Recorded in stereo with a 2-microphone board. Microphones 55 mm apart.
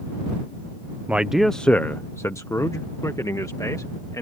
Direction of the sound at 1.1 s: 25° right (ahead or behind).